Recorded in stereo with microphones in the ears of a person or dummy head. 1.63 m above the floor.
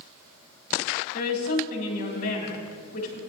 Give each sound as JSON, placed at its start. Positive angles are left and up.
{"t": 1.1, "sound": "a woman speaking", "side_deg": 50, "distance_m": 3.0}